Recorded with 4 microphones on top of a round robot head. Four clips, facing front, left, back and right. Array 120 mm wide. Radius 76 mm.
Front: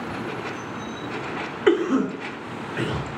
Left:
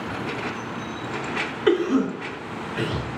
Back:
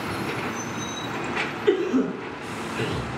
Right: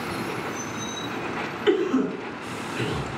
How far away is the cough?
About 0.7 m.